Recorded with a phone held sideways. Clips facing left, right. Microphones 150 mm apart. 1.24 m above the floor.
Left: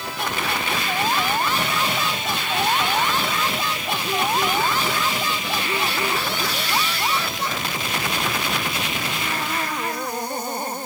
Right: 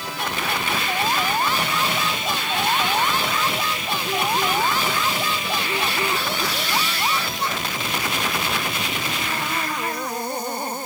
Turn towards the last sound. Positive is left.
No sound to turn to.